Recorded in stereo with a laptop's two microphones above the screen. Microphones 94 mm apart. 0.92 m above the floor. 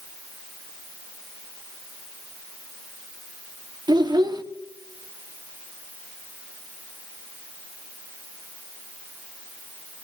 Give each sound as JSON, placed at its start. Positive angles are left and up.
{"t": 3.9, "sound": "a child speaking", "side_deg": -50, "distance_m": 0.9}